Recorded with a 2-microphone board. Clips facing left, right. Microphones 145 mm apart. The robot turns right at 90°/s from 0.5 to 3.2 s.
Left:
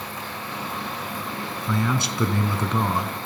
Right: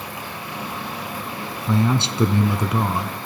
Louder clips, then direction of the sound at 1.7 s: Right 5 dB; 20° right (ahead or behind).